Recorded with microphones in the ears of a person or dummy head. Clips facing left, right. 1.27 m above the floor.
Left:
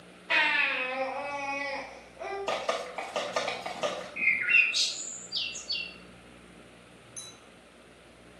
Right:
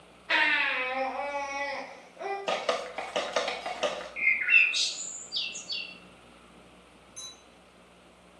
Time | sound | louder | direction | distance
0.3 | a baby crying | right 1 dB | 25° right (ahead or behind) | 1.3 m
2.5 | dripping | right 2 dB | 20° right (ahead or behind) | 0.6 m
4.2 | a bird | even | centre (ahead or behind) | 0.7 m
7.2 | a clink | left 2 dB | 5° left (ahead or behind) | 1.9 m